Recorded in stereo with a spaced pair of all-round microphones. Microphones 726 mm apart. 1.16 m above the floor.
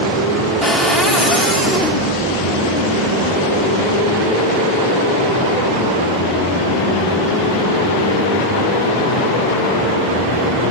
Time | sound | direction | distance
0.6 | a cupboard door | centre (ahead or behind) | 1.6 m